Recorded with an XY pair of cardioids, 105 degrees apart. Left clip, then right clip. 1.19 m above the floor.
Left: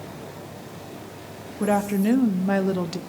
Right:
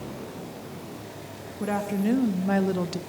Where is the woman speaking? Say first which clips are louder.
Left 5 dB; 35° left, 2.5 m; by 3.0 s 5° left, 1.7 m.